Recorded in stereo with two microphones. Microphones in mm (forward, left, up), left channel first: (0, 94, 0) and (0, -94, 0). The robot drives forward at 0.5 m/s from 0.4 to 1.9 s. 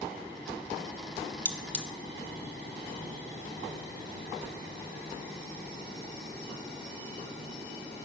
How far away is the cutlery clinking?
About 0.5 m.